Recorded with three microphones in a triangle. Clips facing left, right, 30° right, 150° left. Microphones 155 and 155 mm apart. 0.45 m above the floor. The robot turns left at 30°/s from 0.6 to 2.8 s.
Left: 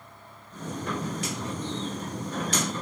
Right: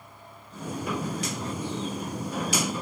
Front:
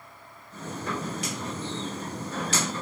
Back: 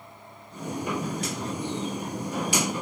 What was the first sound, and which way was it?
Only background noise.